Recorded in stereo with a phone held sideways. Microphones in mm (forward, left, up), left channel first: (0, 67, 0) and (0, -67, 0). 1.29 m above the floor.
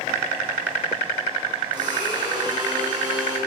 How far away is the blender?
About 4 m.